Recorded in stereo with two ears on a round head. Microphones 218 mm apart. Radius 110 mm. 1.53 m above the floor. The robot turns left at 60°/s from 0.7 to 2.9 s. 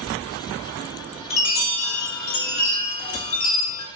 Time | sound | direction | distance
1.3 | a chime | 155° left | 2.5 m